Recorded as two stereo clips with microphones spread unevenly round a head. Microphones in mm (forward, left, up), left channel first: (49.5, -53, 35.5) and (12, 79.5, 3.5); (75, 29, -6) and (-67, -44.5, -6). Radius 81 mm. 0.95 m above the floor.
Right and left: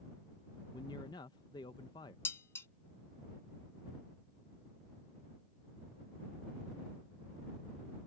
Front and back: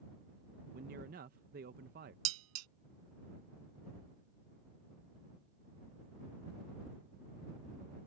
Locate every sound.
0.7 s a man speaking: 140° right
2.2 s dishes clattering: 150° right